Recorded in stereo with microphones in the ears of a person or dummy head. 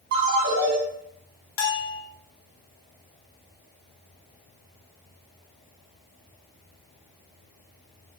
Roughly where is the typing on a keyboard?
I don't hear typing on a keyboard.